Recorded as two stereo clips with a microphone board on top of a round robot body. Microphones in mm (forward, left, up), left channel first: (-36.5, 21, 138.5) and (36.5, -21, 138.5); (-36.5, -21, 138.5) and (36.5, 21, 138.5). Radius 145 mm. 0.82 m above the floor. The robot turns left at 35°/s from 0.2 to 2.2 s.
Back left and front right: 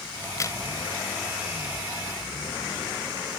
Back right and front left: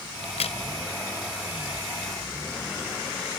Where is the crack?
145° right; by 0.6 s 160° right.